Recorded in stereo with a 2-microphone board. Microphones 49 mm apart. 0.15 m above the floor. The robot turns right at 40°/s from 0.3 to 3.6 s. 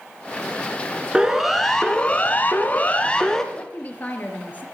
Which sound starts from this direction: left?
A woman speaking, at 3.5 s.